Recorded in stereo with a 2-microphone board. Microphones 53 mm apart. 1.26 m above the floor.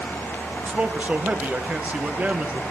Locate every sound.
0.6 s a man speaking: 30° right (ahead or behind), 1.0 m